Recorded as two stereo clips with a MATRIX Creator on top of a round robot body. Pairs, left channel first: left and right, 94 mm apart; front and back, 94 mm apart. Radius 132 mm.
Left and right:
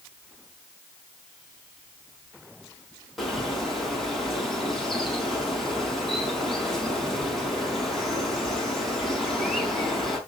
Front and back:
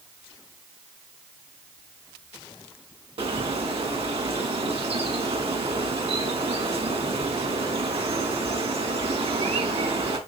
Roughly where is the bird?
Behind.